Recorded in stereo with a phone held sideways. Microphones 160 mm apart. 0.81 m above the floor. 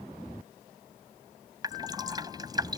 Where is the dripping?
25° right (ahead or behind).